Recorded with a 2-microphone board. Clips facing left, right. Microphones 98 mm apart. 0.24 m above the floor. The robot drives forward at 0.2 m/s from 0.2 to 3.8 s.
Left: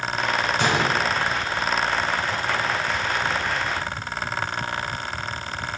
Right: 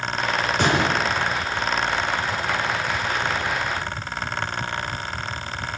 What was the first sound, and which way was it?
A gunshot, 55° right (ahead or behind).